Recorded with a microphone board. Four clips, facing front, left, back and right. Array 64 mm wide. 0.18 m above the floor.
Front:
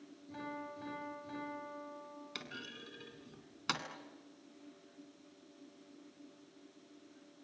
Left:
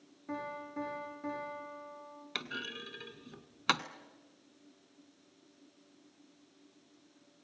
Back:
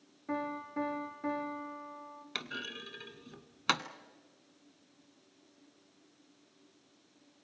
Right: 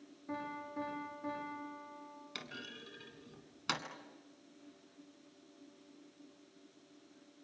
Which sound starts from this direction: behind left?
A clunk, at 2.4 s.